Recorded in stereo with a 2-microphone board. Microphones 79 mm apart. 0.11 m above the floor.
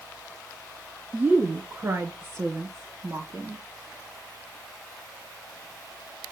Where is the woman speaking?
20° right (ahead or behind), 1.2 m; by 3.6 s 55° right (ahead or behind), 2 m.